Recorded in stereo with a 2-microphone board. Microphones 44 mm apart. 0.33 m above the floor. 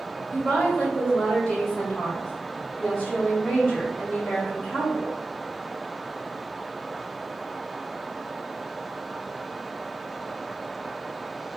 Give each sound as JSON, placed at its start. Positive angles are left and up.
{"t": 0.3, "sound": "a woman speaking", "side_deg": 25, "distance_m": 1.9}